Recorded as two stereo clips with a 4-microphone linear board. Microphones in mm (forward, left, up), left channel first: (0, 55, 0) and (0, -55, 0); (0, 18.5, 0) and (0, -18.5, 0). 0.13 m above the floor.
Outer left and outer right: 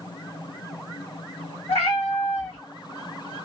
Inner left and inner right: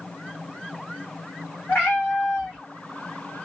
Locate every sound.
1.7 s a cat meowing: 65° left (ahead or behind), 3 m